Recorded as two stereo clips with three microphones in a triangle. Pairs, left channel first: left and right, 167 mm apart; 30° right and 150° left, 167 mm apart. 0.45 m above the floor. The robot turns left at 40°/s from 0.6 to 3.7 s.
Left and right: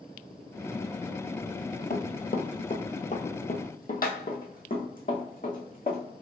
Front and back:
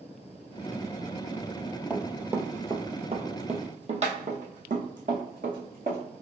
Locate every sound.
1.9 s running footsteps: 70° left, 0.7 m; by 6.0 s 120° left, 2.5 m